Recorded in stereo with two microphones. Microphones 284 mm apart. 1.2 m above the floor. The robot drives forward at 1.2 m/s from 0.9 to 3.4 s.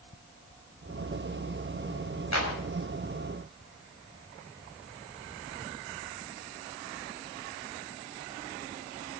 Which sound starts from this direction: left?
A clap, at 2.3 s.